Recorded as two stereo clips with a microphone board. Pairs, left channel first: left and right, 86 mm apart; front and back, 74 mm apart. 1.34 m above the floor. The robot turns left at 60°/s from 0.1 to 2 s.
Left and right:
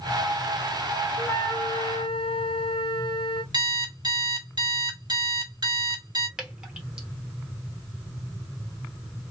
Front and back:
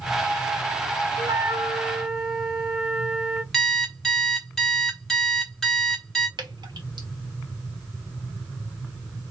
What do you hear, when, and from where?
1.2 s a flute: 145° left, 0.7 m; by 3.4 s 95° left, 0.7 m
3.5 s an alarm clock: 80° right, 1.2 m
6.4 s dripping: 170° right, 1.0 m